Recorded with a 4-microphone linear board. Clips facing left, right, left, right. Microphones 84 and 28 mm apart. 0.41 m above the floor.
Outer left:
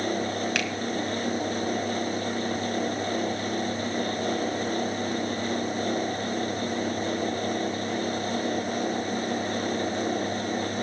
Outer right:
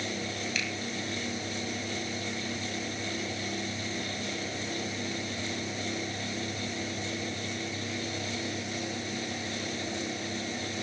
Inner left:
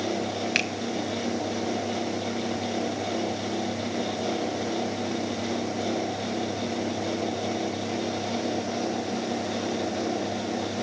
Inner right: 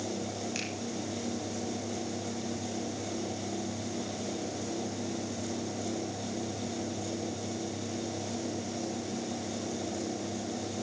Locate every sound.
0.6 s a finger snap: 65° left (ahead or behind), 2.5 m